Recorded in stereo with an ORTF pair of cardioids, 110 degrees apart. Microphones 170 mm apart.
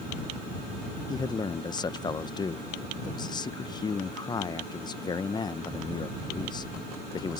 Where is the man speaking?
25° left.